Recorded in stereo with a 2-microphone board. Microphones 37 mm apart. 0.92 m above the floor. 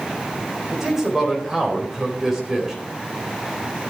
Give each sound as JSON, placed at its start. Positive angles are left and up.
{"t": 0.7, "sound": "a man speaking", "side_deg": -15, "distance_m": 4.0}